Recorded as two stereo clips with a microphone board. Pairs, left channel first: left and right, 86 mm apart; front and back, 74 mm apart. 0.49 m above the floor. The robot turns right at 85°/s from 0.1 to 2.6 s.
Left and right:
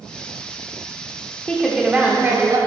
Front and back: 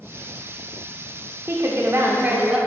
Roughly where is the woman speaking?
Behind left.